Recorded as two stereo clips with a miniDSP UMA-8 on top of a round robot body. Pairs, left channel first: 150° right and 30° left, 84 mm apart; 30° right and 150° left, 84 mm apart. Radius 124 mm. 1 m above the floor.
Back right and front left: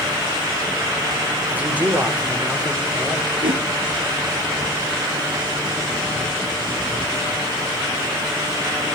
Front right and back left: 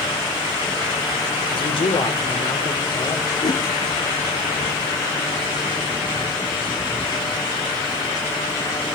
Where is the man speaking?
40° right, 3.5 m.